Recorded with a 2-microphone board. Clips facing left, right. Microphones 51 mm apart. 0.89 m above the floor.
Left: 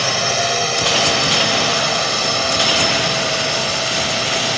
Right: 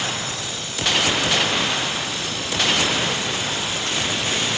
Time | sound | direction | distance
0.0 | a drone | 70° left (ahead or behind) | ?